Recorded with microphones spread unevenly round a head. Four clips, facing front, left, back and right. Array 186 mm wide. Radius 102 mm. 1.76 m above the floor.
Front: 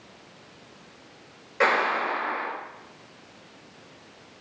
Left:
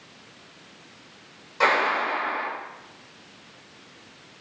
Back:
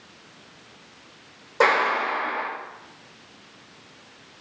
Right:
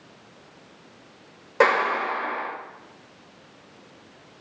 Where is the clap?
105° right, 7 m.